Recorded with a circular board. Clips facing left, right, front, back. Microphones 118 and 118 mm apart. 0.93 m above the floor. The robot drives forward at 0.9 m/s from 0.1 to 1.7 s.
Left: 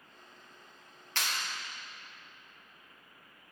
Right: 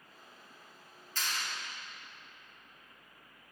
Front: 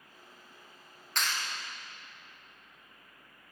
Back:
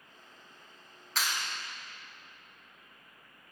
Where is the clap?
90° left, 0.7 m; by 1.5 s 115° left, 0.7 m.